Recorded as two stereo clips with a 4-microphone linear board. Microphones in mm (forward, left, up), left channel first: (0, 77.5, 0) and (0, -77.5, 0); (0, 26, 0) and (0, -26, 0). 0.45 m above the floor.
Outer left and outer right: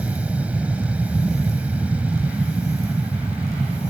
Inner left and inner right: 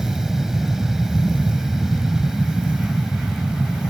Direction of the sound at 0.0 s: 10° right (ahead or behind).